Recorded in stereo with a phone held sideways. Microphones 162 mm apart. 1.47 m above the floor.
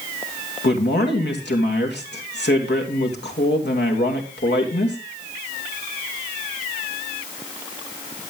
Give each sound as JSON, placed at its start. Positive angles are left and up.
{"t": 0.6, "sound": "a man speaking", "side_deg": 85, "distance_m": 2.5}